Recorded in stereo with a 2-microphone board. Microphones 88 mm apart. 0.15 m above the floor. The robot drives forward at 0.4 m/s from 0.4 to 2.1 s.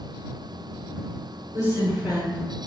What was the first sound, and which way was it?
A woman speaking, 45° right (ahead or behind).